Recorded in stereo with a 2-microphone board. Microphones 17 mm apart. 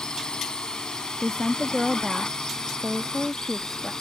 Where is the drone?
50° left (ahead or behind); by 4.0 s 40° left (ahead or behind).